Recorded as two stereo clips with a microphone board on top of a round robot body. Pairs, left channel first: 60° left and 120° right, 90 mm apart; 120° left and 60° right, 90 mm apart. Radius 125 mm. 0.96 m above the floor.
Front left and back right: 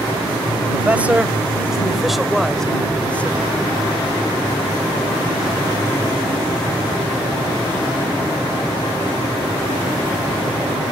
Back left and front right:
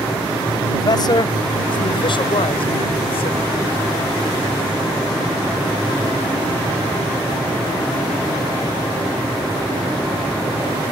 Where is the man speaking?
165° left; by 3.5 s 130° left.